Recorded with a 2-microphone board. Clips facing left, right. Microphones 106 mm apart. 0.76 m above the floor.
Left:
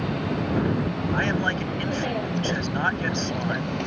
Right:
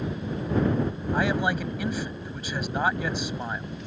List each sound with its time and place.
0.0 s a vehicle: 75° left (ahead or behind)
1.1 s a man speaking: 10° right (ahead or behind)